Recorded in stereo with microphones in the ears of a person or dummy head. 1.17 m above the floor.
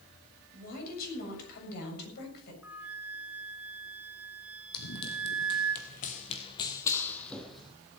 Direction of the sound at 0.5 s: 50° left (ahead or behind).